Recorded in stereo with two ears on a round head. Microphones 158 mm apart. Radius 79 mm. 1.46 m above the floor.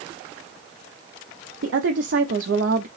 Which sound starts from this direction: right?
A woman speaking, at 1.6 s.